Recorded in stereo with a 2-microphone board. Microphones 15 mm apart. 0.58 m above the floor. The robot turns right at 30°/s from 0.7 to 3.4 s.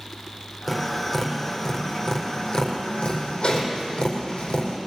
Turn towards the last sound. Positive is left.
turn(degrees=75)  # may be behind; listen again after turning